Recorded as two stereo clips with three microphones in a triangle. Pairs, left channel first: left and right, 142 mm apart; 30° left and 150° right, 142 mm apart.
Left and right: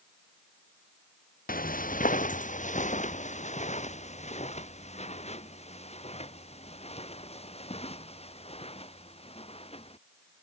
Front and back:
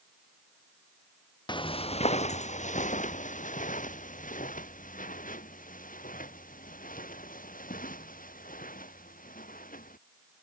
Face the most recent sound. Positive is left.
turn(degrees=45)